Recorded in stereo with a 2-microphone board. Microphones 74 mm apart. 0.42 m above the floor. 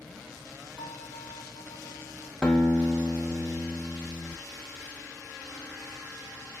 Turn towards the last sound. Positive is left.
turn(degrees=15)  # may be behind; listen again after turning